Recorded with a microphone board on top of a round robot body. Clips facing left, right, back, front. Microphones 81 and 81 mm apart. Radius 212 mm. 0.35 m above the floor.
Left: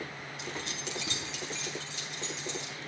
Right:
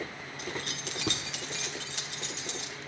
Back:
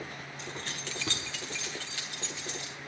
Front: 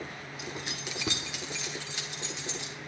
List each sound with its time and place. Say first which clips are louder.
0.4 s keys jangling: right 2 dB, front 2 dB; 80° right, 1.1 m; by 2.8 s 70° right, 2 m